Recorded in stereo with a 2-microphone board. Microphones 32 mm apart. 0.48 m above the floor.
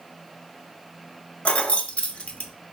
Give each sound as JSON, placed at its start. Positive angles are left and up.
{"t": 1.4, "sound": "keys jangling", "side_deg": 45, "distance_m": 0.5}